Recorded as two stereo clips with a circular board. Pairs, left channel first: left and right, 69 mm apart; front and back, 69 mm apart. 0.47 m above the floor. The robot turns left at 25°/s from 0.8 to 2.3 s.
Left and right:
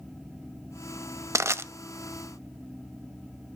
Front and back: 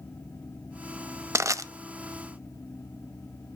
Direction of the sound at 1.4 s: 135° right.